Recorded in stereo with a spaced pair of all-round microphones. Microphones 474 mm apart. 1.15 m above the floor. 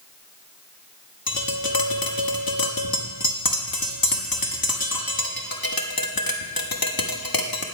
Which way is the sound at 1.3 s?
45° left (ahead or behind).